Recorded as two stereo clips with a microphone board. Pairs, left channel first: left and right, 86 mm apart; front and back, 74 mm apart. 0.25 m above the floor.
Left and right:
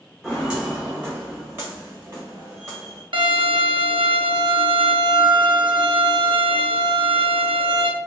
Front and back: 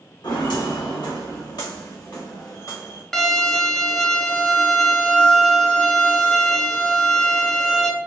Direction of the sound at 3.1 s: 85° right.